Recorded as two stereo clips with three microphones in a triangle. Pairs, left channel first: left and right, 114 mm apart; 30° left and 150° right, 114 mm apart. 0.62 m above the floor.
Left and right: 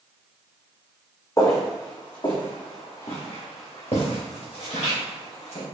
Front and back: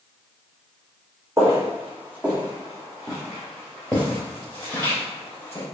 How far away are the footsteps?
About 1.6 m.